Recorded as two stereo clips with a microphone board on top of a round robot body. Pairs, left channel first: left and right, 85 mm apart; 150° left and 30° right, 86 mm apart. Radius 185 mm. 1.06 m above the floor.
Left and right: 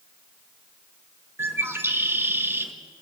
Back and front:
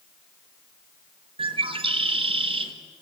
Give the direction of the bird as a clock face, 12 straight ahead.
1 o'clock.